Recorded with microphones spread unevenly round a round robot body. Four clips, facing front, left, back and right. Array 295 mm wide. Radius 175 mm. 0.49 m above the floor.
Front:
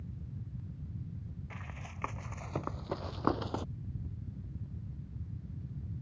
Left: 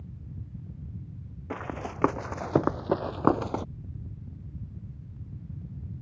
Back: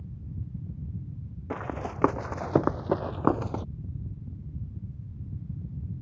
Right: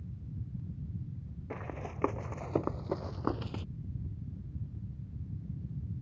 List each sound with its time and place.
1.5 s running footsteps: 125° left; by 3.6 s 80° left